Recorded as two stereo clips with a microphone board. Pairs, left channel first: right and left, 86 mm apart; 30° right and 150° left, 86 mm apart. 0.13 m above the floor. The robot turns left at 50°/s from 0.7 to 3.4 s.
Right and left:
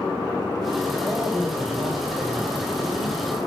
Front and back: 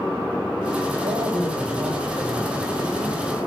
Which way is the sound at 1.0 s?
170° left.